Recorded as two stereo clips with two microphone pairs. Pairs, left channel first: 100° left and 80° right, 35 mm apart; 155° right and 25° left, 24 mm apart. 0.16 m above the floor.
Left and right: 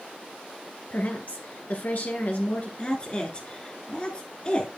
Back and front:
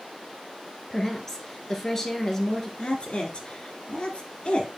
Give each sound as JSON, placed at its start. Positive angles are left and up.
{"t": 0.9, "sound": "a woman speaking", "azimuth_deg": 130, "distance_m": 2.0}
{"t": 2.8, "sound": "a woman speaking", "azimuth_deg": 160, "distance_m": 1.9}